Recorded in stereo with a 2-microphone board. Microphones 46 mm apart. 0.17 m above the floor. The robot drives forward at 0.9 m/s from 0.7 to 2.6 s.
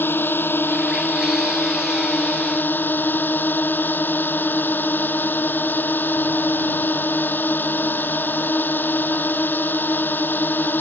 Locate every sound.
0.0 s a drone: 50° left (ahead or behind); by 10.8 s 45° left (ahead or behind)